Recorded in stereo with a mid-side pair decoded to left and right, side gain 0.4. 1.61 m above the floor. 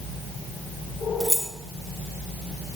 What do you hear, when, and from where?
1.2 s keys jangling: 5° left, 1.8 m